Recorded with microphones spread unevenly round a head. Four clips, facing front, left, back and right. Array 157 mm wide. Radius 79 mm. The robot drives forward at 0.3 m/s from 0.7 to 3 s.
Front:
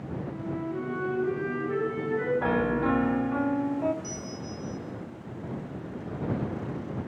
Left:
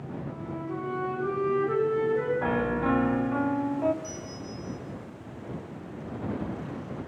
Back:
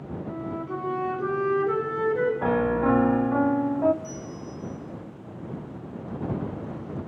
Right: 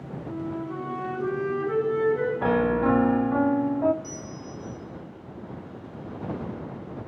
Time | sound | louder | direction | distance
0.3 | a flute | right 5 dB, back 2 dB | 175° left | 3 m
2.4 | a piano | right 4 dB, back 3 dB | 115° right | 0.5 m
4.0 | a bell | even, back 1 dB | 5° left | 8 m